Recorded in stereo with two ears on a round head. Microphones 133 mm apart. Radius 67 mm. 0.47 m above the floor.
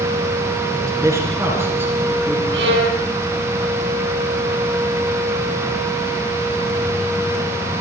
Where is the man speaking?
25° right (ahead or behind), 6.5 m; by 2.6 s 10° right (ahead or behind), 6 m.